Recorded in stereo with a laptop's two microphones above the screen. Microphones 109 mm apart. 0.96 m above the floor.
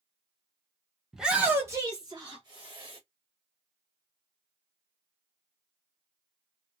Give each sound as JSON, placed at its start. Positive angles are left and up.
{"t": 1.1, "sound": "a shout", "side_deg": 0, "distance_m": 0.6}